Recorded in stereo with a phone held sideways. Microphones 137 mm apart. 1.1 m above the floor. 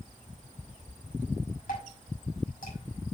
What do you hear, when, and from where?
1.7 s dripping: 75° left (ahead or behind), 5.5 m